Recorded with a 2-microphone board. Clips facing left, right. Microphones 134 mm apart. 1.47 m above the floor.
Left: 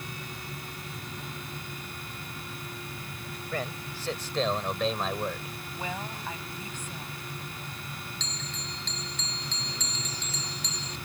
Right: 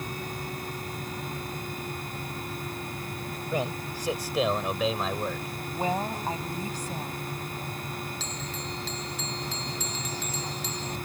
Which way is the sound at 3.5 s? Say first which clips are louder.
Right 4 dB; 20° right (ahead or behind).